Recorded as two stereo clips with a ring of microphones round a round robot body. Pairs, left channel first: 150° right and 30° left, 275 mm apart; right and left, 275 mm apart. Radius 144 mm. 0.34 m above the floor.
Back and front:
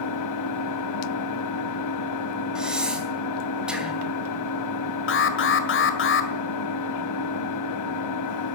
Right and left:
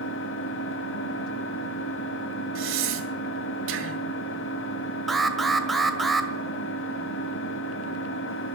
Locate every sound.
0.0 s an engine running: 135° right, 1.2 m
2.5 s breathing: 115° left, 2.5 m
5.1 s an alarm: straight behind, 1.8 m